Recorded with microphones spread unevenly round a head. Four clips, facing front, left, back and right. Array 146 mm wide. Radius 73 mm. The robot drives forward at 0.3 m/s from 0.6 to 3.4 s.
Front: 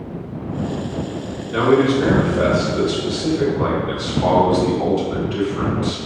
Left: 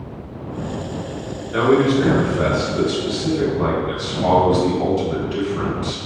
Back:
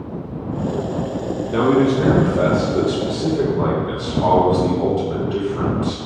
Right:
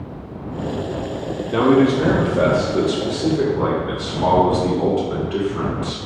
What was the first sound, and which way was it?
A man speaking, 120° right.